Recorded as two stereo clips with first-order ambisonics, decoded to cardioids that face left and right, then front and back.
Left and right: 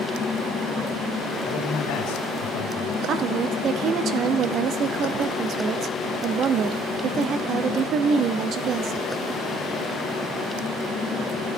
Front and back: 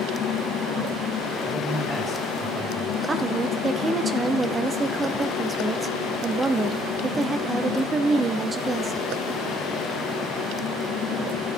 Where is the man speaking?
80° left, 2 m.